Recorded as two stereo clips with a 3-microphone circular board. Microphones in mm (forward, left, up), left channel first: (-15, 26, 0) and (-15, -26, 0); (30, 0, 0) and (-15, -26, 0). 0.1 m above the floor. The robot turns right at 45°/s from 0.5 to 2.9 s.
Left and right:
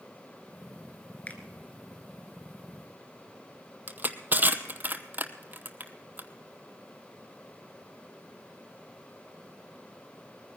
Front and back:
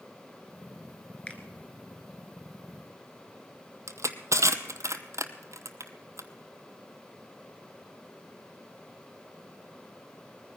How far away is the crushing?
About 0.9 m.